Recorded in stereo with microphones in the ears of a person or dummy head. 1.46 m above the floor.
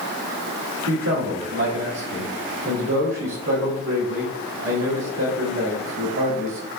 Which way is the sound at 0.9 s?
75° right (ahead or behind).